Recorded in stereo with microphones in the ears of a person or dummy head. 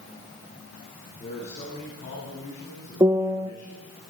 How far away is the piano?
About 1.2 m.